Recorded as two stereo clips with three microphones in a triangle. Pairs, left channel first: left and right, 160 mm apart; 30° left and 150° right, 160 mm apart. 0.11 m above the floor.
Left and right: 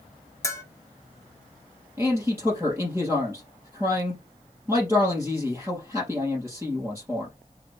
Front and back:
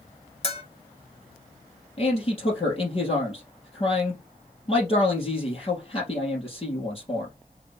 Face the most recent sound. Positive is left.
turn(degrees=-15)